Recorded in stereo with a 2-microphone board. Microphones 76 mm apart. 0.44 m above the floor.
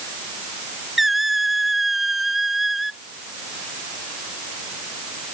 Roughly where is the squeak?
Centre.